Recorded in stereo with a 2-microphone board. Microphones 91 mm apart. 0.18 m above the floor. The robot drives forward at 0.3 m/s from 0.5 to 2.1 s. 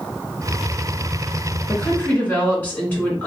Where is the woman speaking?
20° left (ahead or behind), 1.9 m.